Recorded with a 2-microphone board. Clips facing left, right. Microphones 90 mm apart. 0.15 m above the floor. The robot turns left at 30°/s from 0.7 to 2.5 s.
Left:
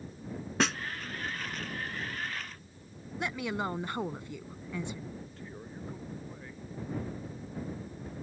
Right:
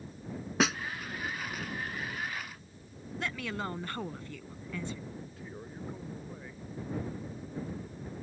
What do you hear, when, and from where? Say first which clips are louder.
0.6 s a snare drum: right 1 dB; 5° right (ahead or behind); by 0.8 s centre (ahead or behind)
3.2 s a woman speaking: left 3 dB; 20° left (ahead or behind)
5.2 s a man speaking: even; 5° right (ahead or behind)